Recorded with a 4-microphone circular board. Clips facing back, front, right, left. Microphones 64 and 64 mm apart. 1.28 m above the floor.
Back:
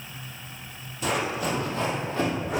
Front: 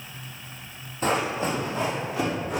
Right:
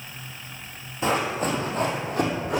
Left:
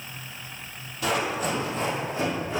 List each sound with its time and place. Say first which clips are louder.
1.0 s running footsteps: front 2 dB, right 2 dB; 35° right, 2.0 m; by 2.6 s 95° right, 3 m